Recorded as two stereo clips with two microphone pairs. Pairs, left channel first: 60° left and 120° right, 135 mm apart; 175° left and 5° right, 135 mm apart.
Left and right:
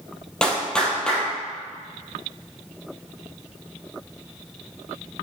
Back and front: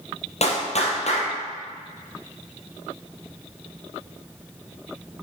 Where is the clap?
145° left, 2.5 m.